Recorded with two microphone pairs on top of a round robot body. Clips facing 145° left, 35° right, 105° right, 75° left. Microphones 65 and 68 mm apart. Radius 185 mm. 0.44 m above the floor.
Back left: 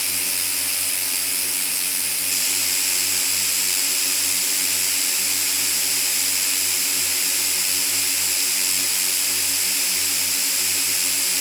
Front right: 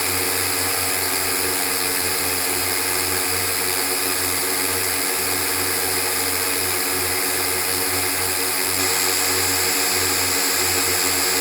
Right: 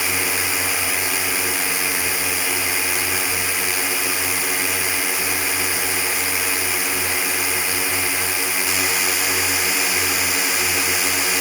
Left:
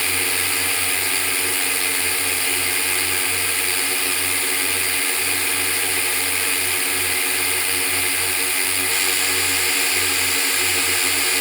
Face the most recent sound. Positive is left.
turn(degrees=-20)